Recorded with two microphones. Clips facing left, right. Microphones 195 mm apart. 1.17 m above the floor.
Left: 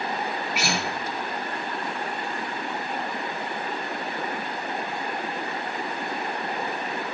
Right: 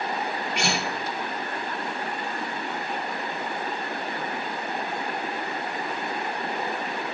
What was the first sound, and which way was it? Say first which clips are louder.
A guitar: right 1 dB; 5° left (ahead or behind).